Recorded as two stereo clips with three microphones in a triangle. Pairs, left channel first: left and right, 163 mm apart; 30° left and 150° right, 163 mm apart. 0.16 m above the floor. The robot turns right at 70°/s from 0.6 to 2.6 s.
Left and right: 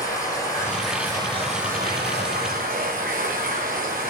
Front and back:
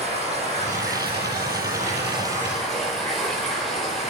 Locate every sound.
0.0 s running water: 160° left, 6 m; by 4.1 s 60° right, 6 m